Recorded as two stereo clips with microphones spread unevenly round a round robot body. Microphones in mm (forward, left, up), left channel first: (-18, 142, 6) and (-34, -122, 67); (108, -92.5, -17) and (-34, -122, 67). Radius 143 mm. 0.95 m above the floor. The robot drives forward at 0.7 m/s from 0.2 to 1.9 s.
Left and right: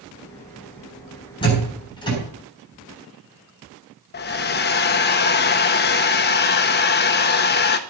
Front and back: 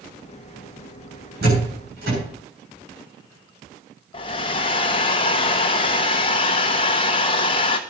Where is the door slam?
155° left, 8 m; by 2.2 s 160° left, 8 m.